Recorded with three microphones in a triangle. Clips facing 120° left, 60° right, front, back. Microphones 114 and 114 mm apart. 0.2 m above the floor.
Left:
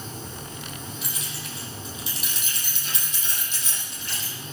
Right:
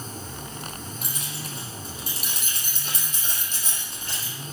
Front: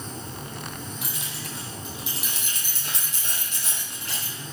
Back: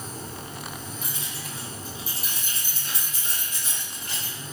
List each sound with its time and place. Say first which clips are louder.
1.0 s keys jangling: right 1 dB, front 1 dB; 20° right, 5 m; by 4.3 s 15° right, 7 m